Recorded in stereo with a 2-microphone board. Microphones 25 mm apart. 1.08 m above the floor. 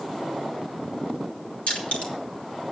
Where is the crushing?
70° left (ahead or behind), 3 m.